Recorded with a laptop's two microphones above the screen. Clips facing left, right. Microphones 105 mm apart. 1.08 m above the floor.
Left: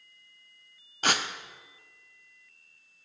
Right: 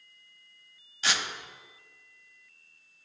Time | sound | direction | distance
1.0 | tearing paper | 50° left (ahead or behind) | 0.6 m